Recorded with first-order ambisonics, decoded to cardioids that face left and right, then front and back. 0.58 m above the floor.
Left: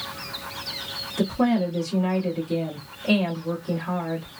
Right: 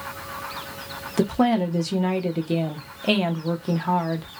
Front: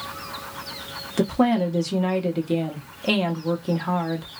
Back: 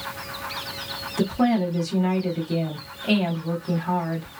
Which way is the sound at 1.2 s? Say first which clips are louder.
Right 3 dB, front 2 dB; 55° right.